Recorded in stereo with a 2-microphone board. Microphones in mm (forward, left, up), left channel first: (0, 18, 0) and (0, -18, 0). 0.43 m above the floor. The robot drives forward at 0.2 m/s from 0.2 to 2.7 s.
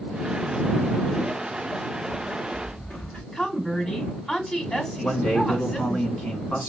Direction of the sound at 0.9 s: 35° left (ahead or behind).